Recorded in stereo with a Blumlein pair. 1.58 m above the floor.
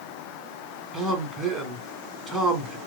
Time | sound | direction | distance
0.9 | a man speaking | 10° right | 1.6 m